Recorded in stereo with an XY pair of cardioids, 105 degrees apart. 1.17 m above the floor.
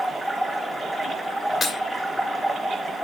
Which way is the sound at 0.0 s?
5° right.